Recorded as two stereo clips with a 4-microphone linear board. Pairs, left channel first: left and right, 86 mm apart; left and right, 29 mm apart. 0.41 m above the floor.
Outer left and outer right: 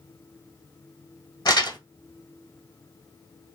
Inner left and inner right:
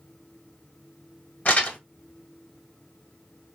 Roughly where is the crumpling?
Left.